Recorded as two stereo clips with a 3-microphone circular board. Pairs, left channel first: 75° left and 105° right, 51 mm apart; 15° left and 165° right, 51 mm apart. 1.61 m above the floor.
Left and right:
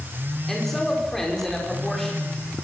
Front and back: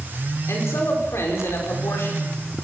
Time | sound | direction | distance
0.5 | a man speaking | 5° right | 6 m